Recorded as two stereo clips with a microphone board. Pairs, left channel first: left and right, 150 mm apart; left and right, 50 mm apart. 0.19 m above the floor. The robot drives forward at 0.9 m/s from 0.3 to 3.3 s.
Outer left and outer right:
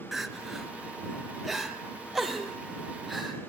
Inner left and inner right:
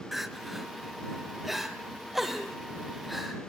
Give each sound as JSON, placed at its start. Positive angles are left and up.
{"t": 0.1, "sound": "crying", "side_deg": 0, "distance_m": 1.8}